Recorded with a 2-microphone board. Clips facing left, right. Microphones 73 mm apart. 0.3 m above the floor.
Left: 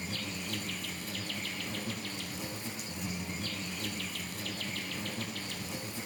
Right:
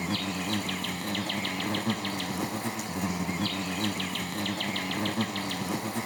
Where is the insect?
70° right (ahead or behind), 0.9 m.